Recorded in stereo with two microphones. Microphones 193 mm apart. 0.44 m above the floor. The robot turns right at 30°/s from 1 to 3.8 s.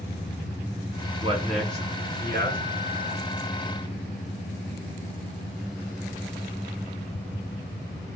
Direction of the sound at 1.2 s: 25° right (ahead or behind).